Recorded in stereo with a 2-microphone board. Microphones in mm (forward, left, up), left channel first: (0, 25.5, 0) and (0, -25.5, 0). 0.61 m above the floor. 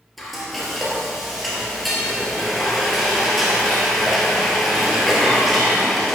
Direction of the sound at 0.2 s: Centre (ahead or behind).